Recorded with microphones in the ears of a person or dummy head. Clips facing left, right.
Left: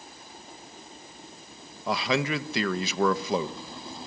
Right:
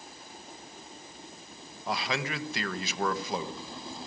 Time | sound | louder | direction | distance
1.9 | a man speaking | left 6 dB | 80° left | 1.5 m